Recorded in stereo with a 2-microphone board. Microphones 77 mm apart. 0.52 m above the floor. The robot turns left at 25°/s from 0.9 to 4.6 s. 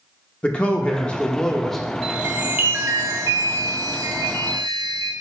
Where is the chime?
20° right, 1.4 m; by 5.1 s 85° right, 1.4 m.